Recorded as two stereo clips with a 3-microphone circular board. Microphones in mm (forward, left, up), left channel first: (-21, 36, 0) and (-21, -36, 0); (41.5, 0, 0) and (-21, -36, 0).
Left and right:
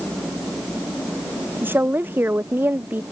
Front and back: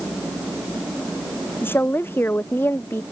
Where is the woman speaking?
30° right.